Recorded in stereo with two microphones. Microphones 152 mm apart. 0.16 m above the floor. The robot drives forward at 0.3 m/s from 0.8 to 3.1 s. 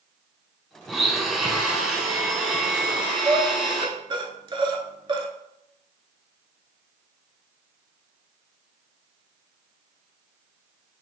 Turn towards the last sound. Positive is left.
turn(degrees=-35)  # may be behind; listen again after turning